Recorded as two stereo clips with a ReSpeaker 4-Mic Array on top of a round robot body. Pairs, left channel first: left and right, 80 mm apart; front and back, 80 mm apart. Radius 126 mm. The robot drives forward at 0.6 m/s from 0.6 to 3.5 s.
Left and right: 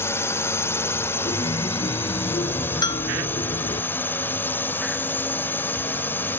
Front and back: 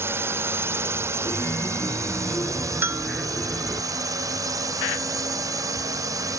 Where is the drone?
135° left; by 6.4 s 150° left.